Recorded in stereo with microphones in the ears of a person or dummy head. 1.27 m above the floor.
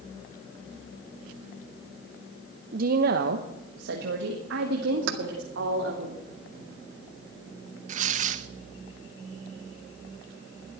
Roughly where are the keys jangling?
Right.